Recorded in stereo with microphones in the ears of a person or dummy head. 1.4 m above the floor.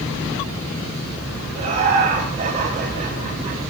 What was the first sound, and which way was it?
Laughter, 45° right (ahead or behind).